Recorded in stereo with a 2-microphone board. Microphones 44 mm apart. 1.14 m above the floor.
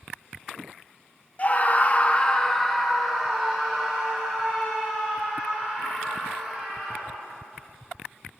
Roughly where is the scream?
Left.